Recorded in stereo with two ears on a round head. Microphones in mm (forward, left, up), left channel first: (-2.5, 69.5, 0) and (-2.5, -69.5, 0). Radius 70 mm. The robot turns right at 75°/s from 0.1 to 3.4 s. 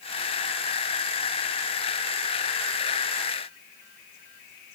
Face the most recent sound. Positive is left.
No sound to turn to.